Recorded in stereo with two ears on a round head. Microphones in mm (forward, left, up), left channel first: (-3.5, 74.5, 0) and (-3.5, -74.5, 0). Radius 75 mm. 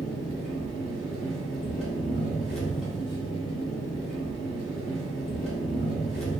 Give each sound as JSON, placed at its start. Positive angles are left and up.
{"t": 0.0, "sound": "an engine running", "side_deg": 5, "distance_m": 1.5}